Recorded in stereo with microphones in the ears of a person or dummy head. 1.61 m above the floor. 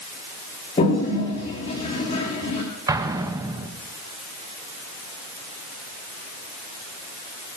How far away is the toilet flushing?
About 8 m.